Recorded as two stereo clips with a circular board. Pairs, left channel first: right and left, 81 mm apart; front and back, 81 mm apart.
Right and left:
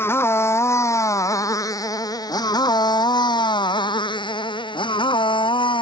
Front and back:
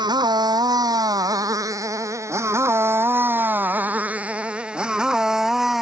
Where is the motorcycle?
150° right; by 5.8 s 95° right.